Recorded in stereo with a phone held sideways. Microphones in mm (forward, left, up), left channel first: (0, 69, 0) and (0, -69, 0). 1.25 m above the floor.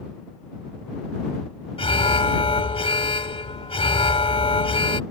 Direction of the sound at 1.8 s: 45° left (ahead or behind).